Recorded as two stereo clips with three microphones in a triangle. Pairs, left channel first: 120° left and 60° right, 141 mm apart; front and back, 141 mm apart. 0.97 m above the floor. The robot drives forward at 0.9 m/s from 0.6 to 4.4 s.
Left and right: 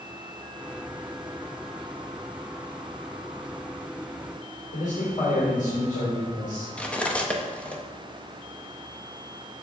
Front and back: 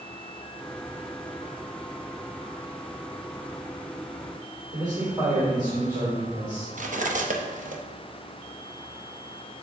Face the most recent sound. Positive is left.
turn(degrees=-160)